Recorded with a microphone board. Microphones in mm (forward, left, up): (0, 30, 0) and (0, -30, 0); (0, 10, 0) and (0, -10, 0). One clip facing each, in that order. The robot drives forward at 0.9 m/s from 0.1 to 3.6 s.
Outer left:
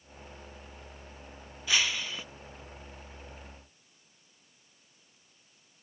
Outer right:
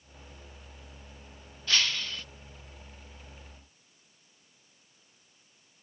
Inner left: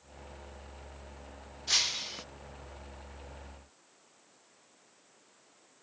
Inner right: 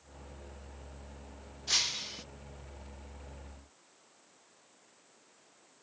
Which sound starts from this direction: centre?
Breaking glass, at 1.7 s.